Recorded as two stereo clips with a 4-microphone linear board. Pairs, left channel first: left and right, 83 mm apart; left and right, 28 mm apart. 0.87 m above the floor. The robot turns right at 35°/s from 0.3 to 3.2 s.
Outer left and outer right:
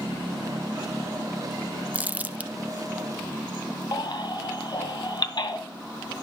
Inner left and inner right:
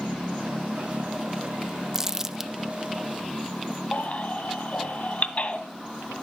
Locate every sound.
1.9 s crumpling: 20° right (ahead or behind), 0.5 m
3.9 s a baby crying: 60° left (ahead or behind), 2 m